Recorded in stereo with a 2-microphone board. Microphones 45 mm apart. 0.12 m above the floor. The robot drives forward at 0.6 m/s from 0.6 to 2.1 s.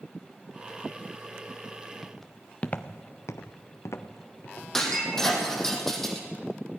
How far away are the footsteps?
About 1.8 m.